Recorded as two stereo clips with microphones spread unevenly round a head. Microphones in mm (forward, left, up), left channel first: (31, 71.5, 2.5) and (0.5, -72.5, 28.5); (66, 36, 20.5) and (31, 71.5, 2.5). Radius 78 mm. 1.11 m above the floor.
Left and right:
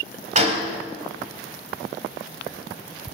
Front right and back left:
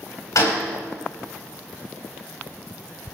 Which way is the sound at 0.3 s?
60° right.